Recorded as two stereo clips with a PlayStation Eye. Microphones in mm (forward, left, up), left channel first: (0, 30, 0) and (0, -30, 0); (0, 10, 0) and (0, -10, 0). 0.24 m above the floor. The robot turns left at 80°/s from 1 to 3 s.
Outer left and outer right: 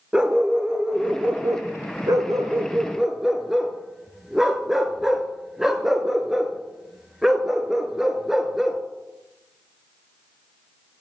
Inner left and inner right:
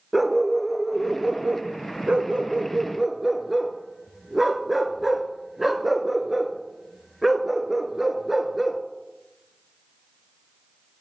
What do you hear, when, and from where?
0.1 s a dog barking: 15° right (ahead or behind), 1.0 m; by 8.8 s 5° right (ahead or behind), 1.0 m